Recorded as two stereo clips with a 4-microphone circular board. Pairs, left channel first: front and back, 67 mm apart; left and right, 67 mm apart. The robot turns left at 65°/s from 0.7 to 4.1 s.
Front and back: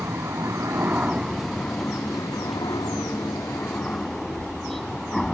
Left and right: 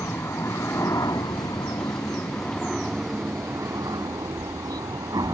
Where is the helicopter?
135° left; by 5.3 s 85° right.